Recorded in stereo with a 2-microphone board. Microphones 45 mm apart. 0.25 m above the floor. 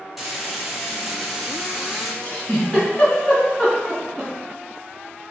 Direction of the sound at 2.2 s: 25° left (ahead or behind).